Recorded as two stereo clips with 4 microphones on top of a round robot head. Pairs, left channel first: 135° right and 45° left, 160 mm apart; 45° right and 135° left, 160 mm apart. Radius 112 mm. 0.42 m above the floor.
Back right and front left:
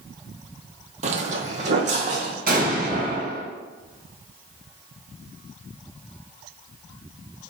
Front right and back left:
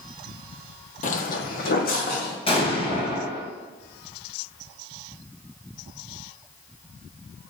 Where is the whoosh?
No whoosh in this recording.